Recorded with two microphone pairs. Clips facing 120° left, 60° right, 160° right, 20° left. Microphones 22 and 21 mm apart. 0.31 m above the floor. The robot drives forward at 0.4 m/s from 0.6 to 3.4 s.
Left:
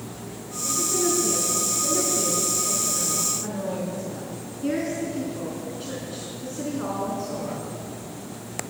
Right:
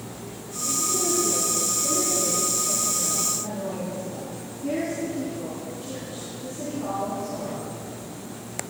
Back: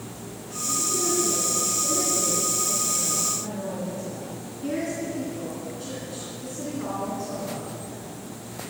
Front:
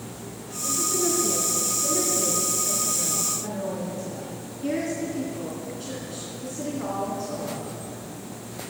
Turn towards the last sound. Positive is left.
turn(degrees=100)